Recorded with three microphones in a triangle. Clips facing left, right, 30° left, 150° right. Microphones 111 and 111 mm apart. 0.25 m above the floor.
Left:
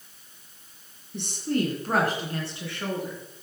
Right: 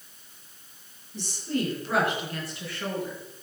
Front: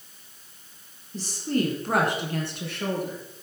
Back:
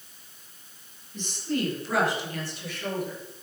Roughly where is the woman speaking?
Left.